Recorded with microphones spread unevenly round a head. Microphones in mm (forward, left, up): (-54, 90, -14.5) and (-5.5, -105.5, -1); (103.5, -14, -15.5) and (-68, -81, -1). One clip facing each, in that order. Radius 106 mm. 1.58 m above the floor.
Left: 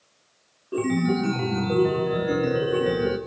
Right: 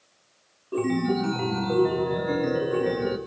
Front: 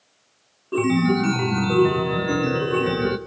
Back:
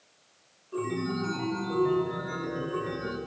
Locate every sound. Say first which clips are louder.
0.7 s a chime: left 1 dB, front 12 dB; 20° left, 1.5 m